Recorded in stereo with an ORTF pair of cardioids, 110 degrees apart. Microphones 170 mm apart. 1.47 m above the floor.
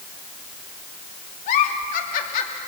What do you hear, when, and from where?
1.5 s a giggle: 55° left, 2.5 m